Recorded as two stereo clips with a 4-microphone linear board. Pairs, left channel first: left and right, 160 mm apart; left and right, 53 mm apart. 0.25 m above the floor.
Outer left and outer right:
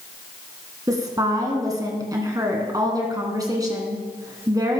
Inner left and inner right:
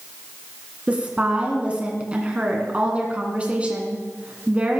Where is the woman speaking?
25° right (ahead or behind), 2.5 m.